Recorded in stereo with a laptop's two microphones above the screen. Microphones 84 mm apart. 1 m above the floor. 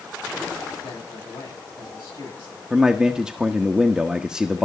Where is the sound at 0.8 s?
80° left, 7.5 m.